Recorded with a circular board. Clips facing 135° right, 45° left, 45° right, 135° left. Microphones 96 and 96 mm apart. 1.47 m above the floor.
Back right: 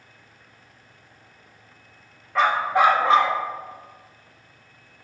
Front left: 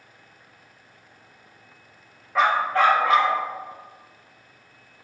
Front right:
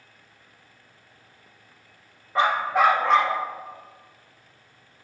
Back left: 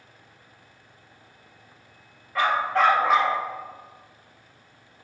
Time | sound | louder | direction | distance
2.4 | a dog barking | back right 1 dB, front right 1 dB | 35° right | 0.9 m